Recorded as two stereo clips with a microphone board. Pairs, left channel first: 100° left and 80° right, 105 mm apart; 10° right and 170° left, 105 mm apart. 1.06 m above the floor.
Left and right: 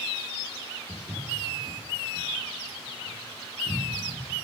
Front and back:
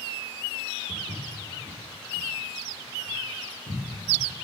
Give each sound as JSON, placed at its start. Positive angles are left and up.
{"t": 0.9, "sound": "footsteps", "azimuth_deg": -20, "distance_m": 4.5}